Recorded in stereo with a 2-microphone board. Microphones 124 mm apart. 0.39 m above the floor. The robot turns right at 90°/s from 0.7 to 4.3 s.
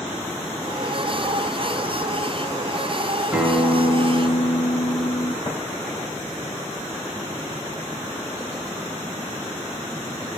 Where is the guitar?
10° right, 0.8 m; by 5.3 s 75° left, 0.8 m.